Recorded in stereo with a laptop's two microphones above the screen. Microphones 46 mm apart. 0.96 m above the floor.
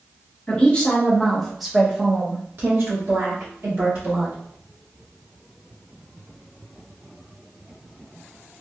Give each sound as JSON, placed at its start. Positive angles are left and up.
{"t": 0.5, "sound": "a woman speaking", "side_deg": 25, "distance_m": 1.2}